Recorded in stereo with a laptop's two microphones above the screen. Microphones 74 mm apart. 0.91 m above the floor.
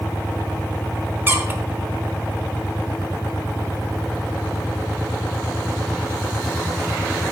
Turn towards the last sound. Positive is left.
turn(degrees=-30)  # may be behind; listen again after turning